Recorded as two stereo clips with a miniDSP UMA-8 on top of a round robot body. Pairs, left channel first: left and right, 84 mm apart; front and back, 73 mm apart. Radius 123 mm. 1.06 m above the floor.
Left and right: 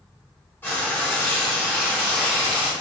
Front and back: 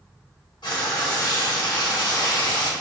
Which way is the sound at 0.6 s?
35° left.